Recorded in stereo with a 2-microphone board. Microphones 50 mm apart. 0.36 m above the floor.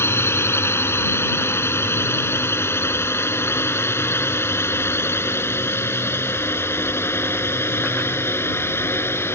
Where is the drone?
55° left (ahead or behind).